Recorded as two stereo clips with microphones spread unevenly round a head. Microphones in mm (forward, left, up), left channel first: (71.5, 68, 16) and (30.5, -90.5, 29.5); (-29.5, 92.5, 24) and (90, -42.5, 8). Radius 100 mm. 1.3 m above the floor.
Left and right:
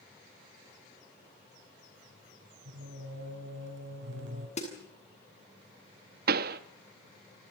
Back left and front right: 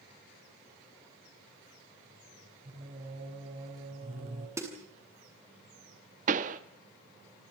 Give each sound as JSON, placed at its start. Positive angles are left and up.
{"t": 2.6, "sound": "singing", "azimuth_deg": -105, "distance_m": 9.0}
{"t": 4.6, "sound": "a snare drum", "azimuth_deg": 25, "distance_m": 8.0}
{"t": 6.3, "sound": "a pop", "azimuth_deg": -100, "distance_m": 1.1}